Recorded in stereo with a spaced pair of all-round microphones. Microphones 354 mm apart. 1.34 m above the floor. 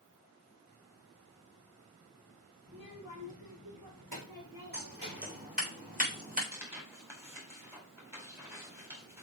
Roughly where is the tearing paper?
Centre.